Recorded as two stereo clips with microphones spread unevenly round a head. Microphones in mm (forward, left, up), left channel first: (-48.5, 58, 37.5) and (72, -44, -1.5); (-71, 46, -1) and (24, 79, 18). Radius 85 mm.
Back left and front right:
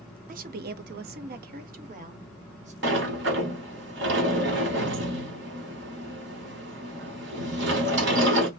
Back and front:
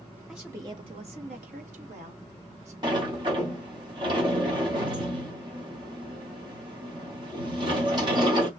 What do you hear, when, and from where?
0.3 s a woman speaking: 70° right, 0.6 m; by 2.7 s straight ahead, 1.6 m
2.8 s a sliding door: 25° right, 1.2 m